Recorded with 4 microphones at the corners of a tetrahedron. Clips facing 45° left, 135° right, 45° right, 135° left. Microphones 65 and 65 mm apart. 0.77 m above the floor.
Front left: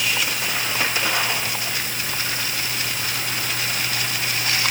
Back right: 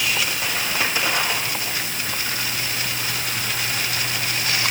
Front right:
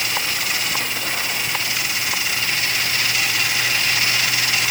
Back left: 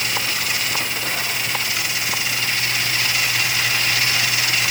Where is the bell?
I don't hear a bell.